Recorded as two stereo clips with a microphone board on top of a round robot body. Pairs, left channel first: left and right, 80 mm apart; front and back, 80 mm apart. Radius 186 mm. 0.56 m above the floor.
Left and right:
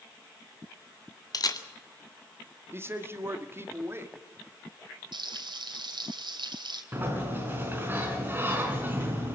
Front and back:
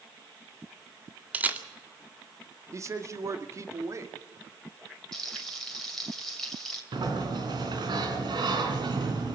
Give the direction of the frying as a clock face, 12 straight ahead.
3 o'clock.